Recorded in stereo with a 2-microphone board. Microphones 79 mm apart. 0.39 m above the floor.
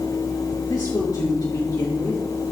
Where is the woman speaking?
55° left (ahead or behind), 4.5 m.